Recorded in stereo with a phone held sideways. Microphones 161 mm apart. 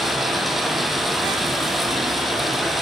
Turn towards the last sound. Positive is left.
turn(degrees=0)  # may be behind; listen again after turning